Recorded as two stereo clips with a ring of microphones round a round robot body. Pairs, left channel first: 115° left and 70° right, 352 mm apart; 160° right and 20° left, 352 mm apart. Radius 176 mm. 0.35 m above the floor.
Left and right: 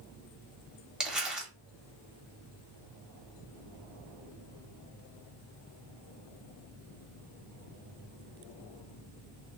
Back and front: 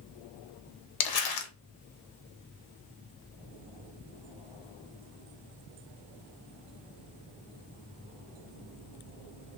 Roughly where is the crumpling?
Behind right.